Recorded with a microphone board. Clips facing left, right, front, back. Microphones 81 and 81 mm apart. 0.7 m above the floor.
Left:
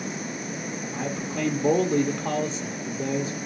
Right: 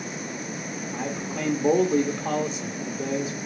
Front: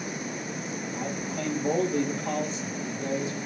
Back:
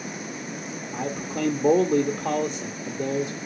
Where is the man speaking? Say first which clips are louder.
Left 1 dB, back 5 dB; straight behind, 0.9 m.